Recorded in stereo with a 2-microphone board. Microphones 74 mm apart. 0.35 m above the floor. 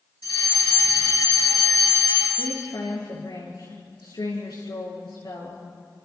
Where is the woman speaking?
75° left (ahead or behind), 5.5 m.